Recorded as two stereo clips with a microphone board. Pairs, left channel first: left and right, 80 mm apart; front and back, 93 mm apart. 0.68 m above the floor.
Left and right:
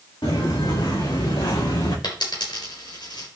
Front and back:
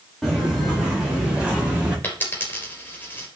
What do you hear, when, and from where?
0.2 s footsteps: 95° left, 5.5 m; by 1.9 s 105° left, 6 m
2.0 s a dropped coin: 70° left, 3.5 m